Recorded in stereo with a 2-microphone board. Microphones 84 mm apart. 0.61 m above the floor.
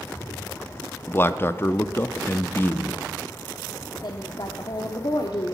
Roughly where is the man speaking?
Left.